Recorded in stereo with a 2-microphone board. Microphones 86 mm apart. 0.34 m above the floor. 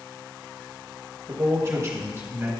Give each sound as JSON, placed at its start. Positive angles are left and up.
{"t": 1.3, "sound": "a man speaking", "side_deg": -35, "distance_m": 1.2}